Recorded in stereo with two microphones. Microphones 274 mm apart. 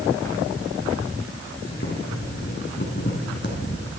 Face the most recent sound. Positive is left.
turn(degrees=40)  # may be behind; listen again after turning